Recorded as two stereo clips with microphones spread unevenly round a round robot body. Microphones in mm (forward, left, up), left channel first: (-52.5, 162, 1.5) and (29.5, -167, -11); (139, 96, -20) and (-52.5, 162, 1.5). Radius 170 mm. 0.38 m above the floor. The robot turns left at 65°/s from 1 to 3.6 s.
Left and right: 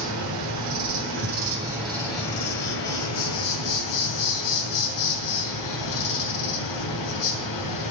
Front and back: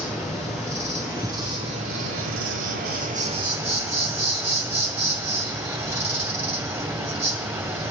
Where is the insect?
110° right, 2.5 m; by 7.9 s 80° left, 2.5 m.